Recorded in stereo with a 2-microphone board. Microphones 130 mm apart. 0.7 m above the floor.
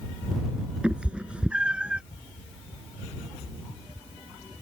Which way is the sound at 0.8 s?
10° right (ahead or behind).